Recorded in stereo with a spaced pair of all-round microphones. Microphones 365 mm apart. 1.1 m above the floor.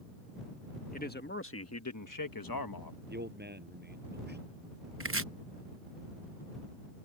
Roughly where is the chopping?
Right.